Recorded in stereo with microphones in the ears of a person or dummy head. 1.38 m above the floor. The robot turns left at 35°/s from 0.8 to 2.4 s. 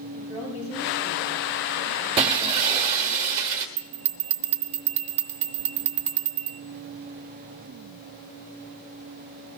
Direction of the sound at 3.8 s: 40° right (ahead or behind).